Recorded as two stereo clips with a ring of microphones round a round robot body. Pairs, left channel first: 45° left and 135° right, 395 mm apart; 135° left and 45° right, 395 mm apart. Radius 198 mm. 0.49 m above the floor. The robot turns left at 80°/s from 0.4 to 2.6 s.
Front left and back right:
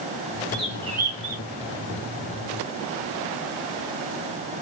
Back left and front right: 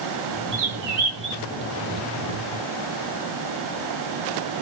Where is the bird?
35° right, 0.9 m; by 1.4 s 105° right, 0.9 m.